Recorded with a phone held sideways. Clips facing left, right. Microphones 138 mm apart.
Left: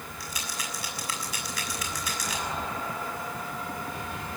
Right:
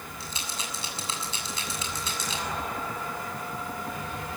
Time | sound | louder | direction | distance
0.2 | a rattle | even | 25° right (ahead or behind) | 6.5 m